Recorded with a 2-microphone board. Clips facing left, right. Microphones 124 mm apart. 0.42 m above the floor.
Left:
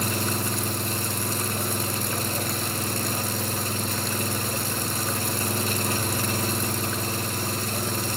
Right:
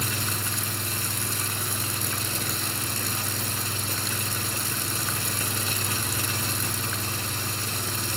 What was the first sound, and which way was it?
An engine running, 50° left (ahead or behind).